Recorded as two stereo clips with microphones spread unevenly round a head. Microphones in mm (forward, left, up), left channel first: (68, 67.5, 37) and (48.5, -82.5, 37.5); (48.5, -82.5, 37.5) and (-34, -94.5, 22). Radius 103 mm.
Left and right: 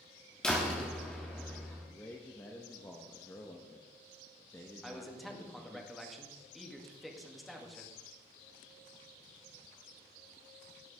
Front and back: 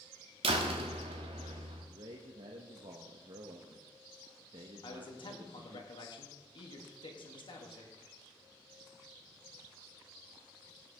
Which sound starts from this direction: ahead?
A man speaking, at 4.8 s.